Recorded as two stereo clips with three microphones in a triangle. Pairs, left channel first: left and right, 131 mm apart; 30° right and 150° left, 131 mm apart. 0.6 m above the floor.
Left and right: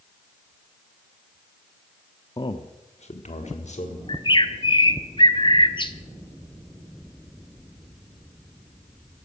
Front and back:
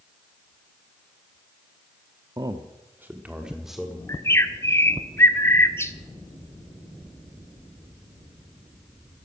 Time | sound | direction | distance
2.4 | a man speaking | 115° left | 0.8 m
4.1 | a bird | 40° left | 1.2 m